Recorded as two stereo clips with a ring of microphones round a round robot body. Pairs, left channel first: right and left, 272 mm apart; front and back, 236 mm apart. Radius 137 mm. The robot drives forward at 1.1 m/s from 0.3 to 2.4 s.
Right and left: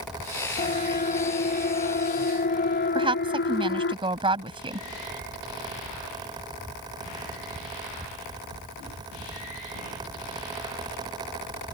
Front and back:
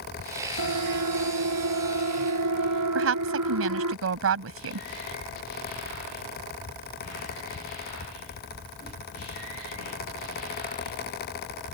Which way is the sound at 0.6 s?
155° right.